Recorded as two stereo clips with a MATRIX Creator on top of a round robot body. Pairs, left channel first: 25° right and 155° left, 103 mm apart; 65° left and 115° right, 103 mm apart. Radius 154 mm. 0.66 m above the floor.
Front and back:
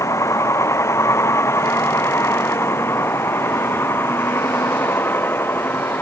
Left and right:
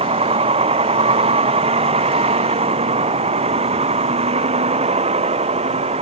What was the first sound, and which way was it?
A vehicle, 85° right.